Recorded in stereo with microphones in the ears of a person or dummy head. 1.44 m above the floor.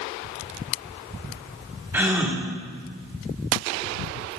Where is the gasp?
15° right (ahead or behind), 1.4 m.